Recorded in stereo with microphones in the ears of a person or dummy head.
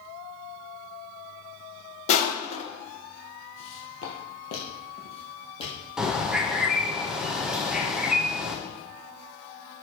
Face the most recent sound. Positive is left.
turn(degrees=-5)  # may be behind; listen again after turning